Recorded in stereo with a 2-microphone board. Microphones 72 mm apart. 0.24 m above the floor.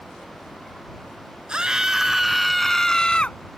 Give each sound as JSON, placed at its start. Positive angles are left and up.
{"t": 1.5, "sound": "a scream", "side_deg": -15}